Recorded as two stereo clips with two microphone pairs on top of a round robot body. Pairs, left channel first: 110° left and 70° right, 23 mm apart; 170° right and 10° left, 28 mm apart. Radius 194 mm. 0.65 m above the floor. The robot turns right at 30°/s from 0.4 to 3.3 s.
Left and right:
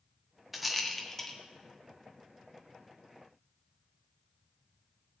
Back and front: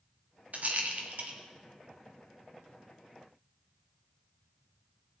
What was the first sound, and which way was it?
A rattle, 10° left.